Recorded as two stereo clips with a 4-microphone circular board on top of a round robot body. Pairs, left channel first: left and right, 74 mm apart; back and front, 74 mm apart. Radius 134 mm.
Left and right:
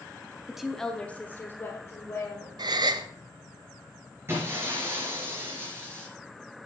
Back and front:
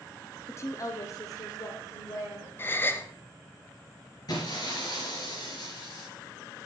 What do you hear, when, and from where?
0.5 s a woman speaking: 165° right, 1.0 m; by 2.5 s 140° left, 2.5 m
2.6 s a gasp: 120° right, 0.6 m
4.3 s breaking glass: 150° right, 3.5 m